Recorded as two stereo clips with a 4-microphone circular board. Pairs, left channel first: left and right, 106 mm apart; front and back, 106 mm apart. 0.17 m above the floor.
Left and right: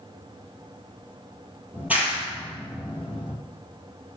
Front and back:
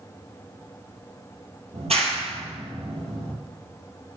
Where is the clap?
165° right, 3.5 m.